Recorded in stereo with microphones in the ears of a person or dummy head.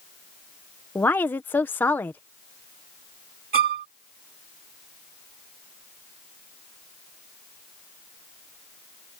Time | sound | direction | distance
0.9 | a woman speaking | 10° left (ahead or behind) | ?
3.5 | a violin | 40° right (ahead or behind) | ?